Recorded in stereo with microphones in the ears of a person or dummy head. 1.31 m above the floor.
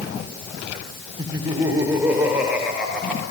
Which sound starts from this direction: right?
Laughter, at 1.2 s.